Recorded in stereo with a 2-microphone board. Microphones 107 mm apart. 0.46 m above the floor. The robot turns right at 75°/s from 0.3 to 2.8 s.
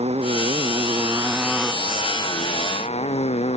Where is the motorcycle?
95° right; by 3.6 s 90° left.